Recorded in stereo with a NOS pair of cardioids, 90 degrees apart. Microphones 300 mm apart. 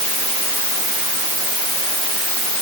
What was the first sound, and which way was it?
Only background noise.